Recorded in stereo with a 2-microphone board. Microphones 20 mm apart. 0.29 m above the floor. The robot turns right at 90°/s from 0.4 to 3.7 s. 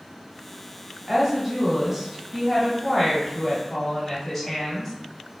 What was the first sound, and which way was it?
A woman speaking, centre (ahead or behind).